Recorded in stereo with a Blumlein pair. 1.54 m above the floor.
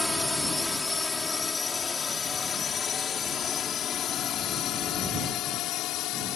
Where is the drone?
10° left; by 6.4 s 40° left.